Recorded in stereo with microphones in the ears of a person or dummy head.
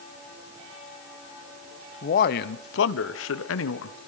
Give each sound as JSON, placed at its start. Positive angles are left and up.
{"t": 2.0, "sound": "a man speaking", "side_deg": 45, "distance_m": 1.0}